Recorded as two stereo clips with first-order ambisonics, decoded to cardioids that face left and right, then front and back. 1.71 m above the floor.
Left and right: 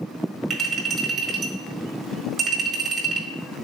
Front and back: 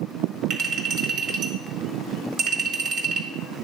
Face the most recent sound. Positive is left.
turn(degrees=-160)